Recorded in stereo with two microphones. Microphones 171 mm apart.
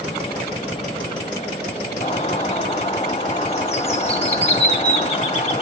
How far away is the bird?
About 0.6 m.